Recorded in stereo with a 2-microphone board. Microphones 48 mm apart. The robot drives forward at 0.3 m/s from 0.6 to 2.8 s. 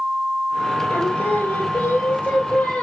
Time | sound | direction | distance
0.9 | singing | 45° left (ahead or behind) | 1.7 m